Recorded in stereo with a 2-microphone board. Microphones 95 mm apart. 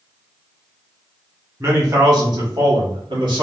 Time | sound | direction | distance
1.6 | a man speaking | 35° right (ahead or behind) | 1.6 m